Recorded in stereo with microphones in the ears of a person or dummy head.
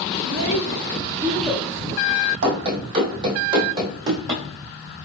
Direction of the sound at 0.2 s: 65° right (ahead or behind).